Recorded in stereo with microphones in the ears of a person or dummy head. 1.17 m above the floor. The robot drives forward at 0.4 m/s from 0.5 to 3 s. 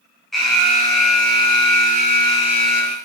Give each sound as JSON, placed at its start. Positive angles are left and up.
{"t": 0.3, "sound": "an alarm", "side_deg": 0, "distance_m": 1.1}